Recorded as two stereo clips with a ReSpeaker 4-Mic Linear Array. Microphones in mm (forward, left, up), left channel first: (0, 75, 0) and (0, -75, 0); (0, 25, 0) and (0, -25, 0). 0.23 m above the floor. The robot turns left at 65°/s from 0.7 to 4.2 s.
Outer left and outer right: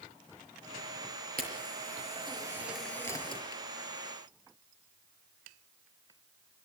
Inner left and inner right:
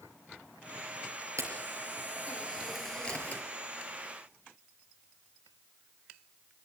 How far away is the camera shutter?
About 5 m.